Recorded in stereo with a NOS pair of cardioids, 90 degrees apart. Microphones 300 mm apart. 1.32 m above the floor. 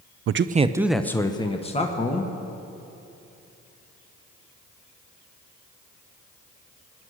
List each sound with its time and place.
0.3 s a man speaking: 50° right, 0.6 m; by 2.3 s 25° left, 2 m